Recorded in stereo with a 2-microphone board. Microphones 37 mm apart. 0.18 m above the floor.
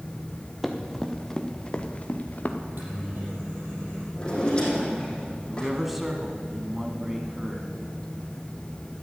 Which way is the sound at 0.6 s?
5° right (ahead or behind).